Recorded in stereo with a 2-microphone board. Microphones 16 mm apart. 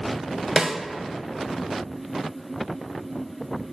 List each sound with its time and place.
0.6 s a snare drum: 50° right (ahead or behind), 0.6 m